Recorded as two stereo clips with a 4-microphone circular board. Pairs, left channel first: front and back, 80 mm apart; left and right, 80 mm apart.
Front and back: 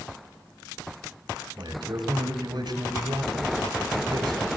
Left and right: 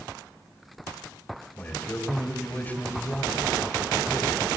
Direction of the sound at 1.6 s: 155° left.